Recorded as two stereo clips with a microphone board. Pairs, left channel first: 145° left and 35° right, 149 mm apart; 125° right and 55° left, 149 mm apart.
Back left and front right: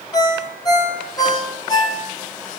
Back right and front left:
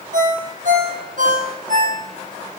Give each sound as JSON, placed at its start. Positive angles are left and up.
{"t": 0.1, "sound": "a ringtone", "azimuth_deg": 80, "distance_m": 2.5}